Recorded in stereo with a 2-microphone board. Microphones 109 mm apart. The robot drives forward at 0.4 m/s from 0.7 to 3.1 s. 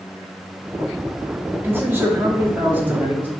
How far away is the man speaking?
About 0.8 m.